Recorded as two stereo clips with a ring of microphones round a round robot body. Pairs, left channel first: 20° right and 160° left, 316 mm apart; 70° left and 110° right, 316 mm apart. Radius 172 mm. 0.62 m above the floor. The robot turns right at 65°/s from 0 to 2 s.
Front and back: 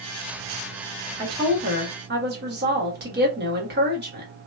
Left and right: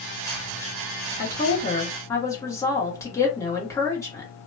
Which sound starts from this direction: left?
A woman speaking, at 1.2 s.